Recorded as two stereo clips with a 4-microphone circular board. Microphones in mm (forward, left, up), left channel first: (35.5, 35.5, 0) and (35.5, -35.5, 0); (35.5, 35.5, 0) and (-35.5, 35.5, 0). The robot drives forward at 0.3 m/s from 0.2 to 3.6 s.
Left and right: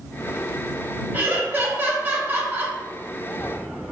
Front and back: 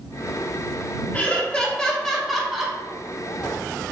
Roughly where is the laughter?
Ahead right.